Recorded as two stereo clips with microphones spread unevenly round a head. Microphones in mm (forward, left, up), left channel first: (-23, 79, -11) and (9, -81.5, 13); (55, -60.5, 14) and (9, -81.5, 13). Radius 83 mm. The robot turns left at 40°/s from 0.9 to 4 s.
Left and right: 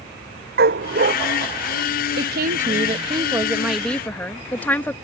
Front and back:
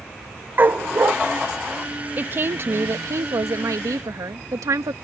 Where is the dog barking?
105° right; by 1.1 s 115° right.